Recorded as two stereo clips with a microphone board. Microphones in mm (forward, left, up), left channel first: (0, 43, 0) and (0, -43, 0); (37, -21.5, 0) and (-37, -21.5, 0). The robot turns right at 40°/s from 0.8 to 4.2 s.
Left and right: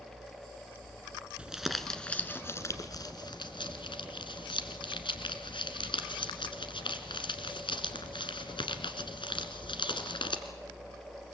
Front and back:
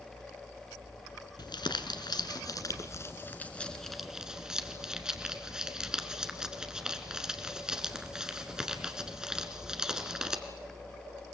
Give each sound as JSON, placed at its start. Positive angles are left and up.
{"t": 1.4, "sound": "crumpling", "azimuth_deg": -15, "distance_m": 1.4}